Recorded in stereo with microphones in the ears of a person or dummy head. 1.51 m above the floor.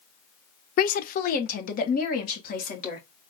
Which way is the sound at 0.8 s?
45° left (ahead or behind).